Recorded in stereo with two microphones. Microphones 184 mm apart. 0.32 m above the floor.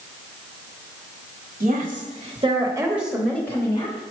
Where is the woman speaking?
50° right (ahead or behind), 1.3 m; by 4.0 s 30° left (ahead or behind), 1.2 m.